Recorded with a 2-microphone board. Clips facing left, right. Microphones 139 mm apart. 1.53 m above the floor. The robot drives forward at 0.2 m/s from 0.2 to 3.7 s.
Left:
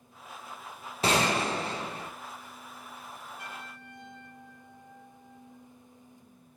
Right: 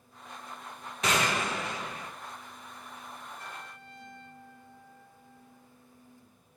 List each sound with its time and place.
1.0 s a gunshot: 30° left (ahead or behind), 0.6 m
3.4 s a trumpet: 85° left, 1.1 m